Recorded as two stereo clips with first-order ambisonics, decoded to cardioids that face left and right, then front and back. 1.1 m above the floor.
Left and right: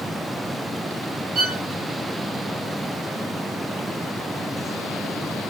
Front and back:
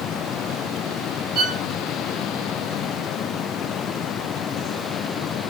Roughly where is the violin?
Behind right.